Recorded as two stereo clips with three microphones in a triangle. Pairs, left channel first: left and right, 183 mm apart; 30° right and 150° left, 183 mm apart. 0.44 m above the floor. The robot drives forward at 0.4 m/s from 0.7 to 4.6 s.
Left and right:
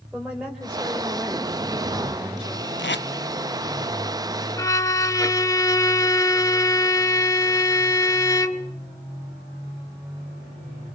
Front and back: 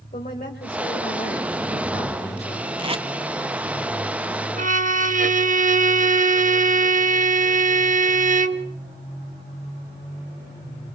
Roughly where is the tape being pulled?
Left.